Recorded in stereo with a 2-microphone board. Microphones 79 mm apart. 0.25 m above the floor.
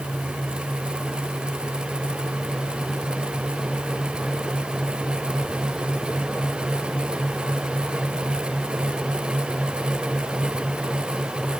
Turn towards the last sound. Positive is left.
No sound to turn to.